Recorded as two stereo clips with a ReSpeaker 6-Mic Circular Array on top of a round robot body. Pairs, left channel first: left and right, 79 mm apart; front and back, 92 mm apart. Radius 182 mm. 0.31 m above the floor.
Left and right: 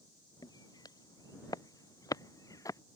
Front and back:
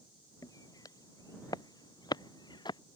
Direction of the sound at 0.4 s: 50° left.